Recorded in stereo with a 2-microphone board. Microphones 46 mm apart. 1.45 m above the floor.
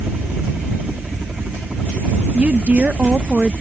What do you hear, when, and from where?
0.0 s a helicopter: 20° right (ahead or behind); by 3.6 s 15° right (ahead or behind)
2.3 s a woman speaking: 35° right (ahead or behind)